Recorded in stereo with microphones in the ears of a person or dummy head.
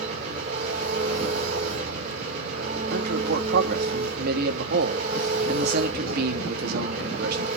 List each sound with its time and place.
0.0 s an engine running: 40° right (ahead or behind), 5 m
2.9 s a man speaking: 55° right (ahead or behind), 2.5 m